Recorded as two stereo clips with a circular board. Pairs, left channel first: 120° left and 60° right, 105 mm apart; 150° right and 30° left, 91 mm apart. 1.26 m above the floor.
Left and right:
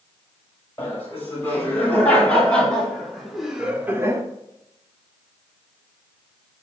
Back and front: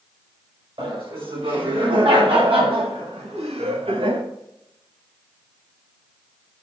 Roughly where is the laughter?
Ahead left.